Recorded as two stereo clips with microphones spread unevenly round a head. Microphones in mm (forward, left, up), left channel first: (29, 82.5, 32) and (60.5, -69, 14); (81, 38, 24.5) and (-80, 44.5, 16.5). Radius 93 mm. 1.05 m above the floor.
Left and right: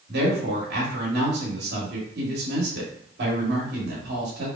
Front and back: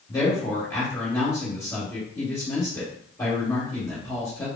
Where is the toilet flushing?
No toilet flushing in this recording.